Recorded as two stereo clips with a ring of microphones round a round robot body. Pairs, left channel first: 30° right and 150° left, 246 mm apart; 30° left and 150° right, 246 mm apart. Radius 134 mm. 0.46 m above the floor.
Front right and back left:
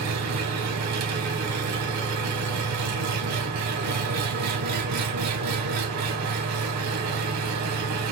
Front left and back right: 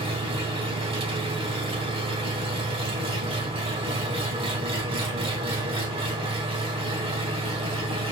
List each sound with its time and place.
0.0 s an engine running: 140° left, 3.5 m